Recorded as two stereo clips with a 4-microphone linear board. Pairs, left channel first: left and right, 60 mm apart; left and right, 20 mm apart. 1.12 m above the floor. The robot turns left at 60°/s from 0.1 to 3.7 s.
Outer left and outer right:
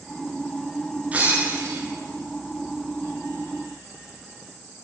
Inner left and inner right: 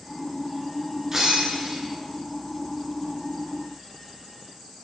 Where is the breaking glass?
25° right, 10 m; by 1.8 s 65° right, 10 m.